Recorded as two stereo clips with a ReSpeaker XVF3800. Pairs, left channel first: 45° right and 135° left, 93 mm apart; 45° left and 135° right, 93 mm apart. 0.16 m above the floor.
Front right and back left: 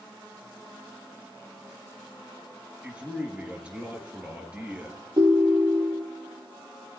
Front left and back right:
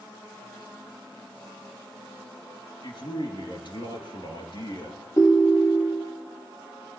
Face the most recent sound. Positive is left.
turn(degrees=100)